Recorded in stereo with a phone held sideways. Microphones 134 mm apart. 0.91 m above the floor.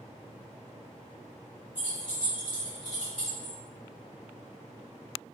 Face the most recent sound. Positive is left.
turn(degrees=-55)  # may be behind; listen again after turning